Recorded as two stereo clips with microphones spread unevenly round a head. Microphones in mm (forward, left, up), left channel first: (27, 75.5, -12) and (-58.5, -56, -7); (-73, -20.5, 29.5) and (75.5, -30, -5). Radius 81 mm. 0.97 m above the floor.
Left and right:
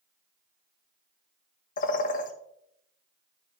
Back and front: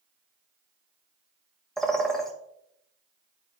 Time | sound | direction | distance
1.8 | a bird | 80° left | 0.9 m